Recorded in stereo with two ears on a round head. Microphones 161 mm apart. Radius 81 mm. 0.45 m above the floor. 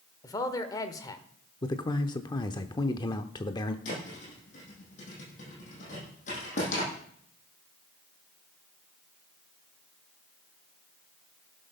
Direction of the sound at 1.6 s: 20° left (ahead or behind).